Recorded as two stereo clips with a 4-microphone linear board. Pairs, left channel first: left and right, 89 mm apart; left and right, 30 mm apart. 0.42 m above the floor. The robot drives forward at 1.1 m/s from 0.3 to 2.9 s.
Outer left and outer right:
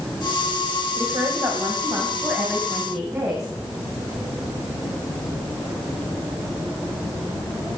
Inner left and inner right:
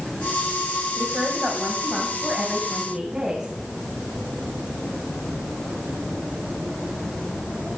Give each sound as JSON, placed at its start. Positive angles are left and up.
{"t": 1.0, "sound": "a woman speaking", "side_deg": -50, "distance_m": 2.5}